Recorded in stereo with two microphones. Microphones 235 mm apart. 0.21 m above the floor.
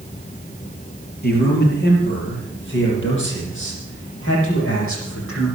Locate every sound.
1.2 s a man speaking: 40° left (ahead or behind), 5 m; by 5.5 s 65° left (ahead or behind), 9.5 m